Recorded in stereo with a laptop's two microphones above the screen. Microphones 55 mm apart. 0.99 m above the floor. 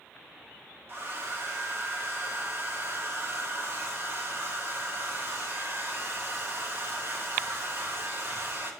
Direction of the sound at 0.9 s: 45° right (ahead or behind).